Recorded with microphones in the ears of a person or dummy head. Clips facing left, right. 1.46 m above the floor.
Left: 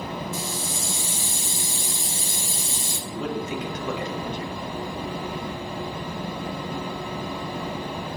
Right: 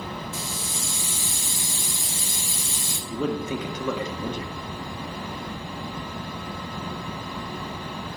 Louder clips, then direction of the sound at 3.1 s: Right 2 dB; 85° right.